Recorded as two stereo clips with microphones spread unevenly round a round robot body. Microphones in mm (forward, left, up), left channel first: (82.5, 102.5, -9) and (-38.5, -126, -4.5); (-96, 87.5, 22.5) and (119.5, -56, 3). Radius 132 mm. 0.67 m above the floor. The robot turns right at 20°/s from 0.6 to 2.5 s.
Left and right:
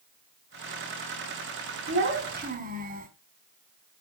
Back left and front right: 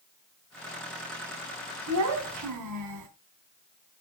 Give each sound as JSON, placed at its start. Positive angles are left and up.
{"t": 1.9, "sound": "a child speaking", "azimuth_deg": -70, "distance_m": 3.5}